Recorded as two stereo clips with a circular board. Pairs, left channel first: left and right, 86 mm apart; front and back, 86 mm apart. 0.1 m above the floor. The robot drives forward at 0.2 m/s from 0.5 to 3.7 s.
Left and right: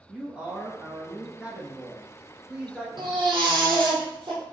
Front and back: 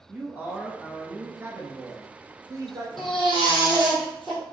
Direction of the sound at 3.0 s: 90° right.